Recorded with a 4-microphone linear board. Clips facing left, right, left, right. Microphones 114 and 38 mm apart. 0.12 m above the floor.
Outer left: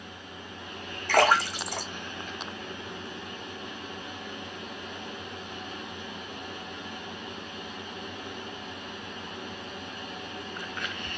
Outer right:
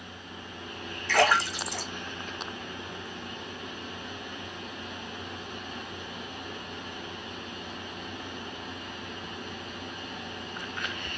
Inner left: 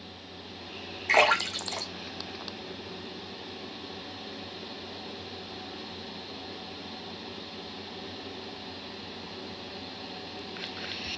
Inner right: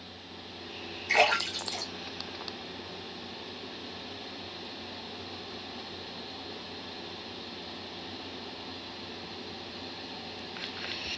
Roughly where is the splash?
Left.